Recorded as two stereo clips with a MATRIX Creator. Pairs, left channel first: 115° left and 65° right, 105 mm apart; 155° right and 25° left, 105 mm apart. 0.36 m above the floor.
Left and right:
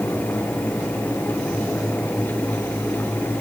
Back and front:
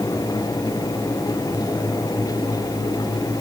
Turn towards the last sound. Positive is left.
No sound to turn to.